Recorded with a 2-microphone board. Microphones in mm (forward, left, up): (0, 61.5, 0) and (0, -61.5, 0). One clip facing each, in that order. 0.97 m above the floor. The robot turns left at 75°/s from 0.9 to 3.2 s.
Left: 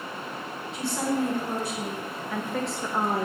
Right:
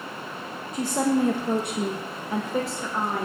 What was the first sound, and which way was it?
A woman speaking, 45° right.